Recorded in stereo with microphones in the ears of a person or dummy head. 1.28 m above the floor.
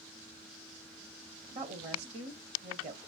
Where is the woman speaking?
45° right (ahead or behind), 1.6 m.